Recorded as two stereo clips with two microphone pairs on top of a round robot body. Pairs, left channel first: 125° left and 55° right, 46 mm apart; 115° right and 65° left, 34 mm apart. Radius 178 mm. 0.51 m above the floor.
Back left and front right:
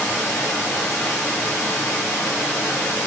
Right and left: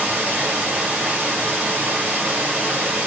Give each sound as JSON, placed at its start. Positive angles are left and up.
{"t": 0.0, "sound": "running water", "azimuth_deg": 110, "distance_m": 1.1}